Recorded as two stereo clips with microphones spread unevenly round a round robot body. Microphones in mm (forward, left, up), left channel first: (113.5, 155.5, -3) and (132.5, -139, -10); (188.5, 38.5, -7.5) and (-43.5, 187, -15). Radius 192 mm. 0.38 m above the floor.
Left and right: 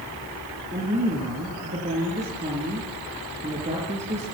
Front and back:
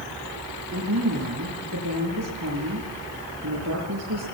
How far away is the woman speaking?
About 6 m.